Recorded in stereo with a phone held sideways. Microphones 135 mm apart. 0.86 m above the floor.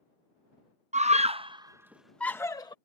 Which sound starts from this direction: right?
A scream, at 0.9 s.